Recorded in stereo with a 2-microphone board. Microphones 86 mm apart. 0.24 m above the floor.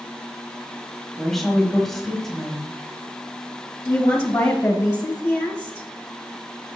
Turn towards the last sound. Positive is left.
turn(degrees=20)  # may be behind; listen again after turning